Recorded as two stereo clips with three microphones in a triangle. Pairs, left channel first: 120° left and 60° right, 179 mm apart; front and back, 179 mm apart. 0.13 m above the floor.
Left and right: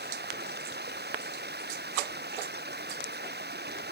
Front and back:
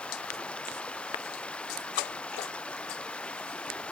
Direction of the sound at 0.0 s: 85° right.